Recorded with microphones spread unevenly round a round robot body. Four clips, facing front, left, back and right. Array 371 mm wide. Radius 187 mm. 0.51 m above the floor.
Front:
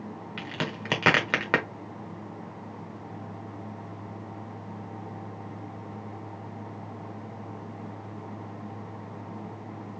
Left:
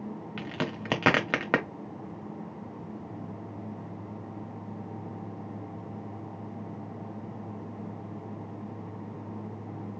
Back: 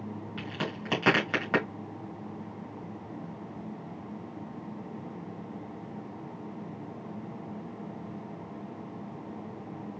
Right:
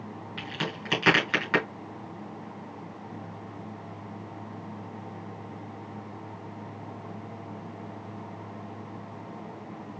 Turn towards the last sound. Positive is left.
turn(degrees=60)